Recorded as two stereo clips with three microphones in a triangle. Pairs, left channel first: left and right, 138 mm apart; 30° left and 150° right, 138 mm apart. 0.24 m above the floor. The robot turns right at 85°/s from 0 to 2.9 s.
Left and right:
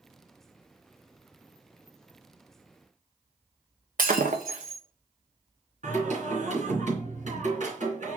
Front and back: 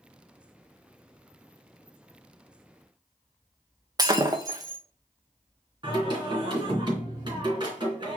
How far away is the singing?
About 3 m.